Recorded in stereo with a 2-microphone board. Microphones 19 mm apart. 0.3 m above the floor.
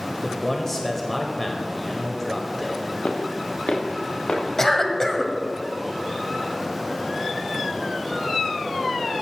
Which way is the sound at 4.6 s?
25° left (ahead or behind).